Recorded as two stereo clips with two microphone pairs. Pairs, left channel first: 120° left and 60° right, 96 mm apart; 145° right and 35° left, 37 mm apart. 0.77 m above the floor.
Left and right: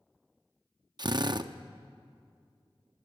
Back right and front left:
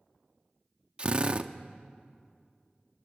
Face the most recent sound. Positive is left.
turn(degrees=-20)